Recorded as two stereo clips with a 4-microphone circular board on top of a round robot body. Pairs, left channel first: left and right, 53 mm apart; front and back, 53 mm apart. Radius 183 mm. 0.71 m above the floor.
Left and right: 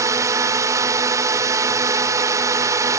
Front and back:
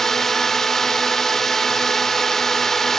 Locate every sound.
0.0 s a drone: 80° right